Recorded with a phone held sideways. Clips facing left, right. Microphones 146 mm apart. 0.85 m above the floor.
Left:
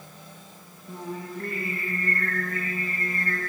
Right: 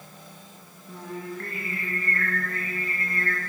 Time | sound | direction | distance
0.9 | singing | 20° left (ahead or behind) | 9.5 m